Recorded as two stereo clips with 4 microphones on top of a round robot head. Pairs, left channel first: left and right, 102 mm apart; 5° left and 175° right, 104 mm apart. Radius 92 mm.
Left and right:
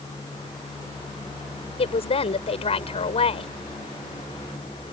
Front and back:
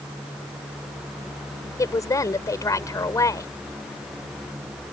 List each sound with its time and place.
1.8 s a woman speaking: 65° left